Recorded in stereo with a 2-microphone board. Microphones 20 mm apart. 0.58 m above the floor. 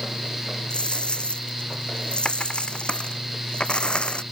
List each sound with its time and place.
0.7 s a dropped coin: 55° left (ahead or behind)